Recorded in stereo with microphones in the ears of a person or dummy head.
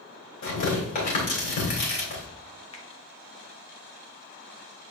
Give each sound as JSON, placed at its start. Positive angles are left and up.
{"t": 0.4, "sound": "tearing paper", "side_deg": 50, "distance_m": 2.5}
{"t": 2.7, "sound": "a finger snap", "side_deg": 30, "distance_m": 0.8}